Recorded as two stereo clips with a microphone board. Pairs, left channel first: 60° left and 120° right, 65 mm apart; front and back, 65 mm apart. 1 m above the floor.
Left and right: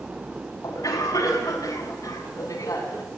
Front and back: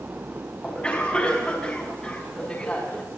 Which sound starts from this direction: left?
A cough, at 0.6 s.